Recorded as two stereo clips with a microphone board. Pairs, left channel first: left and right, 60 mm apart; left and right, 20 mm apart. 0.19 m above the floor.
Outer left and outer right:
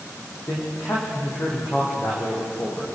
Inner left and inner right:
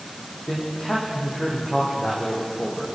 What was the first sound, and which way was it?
A man speaking, 50° left (ahead or behind).